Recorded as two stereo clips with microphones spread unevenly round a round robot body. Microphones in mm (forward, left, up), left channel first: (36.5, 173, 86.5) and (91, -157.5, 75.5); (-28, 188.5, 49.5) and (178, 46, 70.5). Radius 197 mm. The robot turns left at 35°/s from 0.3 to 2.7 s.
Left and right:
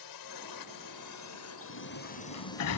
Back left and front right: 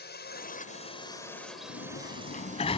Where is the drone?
100° left; by 2.8 s 15° left.